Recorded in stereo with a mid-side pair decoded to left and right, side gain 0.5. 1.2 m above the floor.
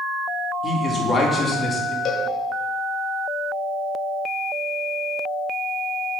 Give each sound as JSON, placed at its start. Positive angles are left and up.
{"t": 0.6, "sound": "a man speaking", "azimuth_deg": 20, "distance_m": 2.5}
{"t": 2.0, "sound": "a cowbell", "azimuth_deg": 55, "distance_m": 1.2}